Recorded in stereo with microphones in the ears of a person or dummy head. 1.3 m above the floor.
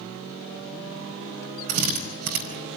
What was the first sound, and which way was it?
A drill, 50° right (ahead or behind).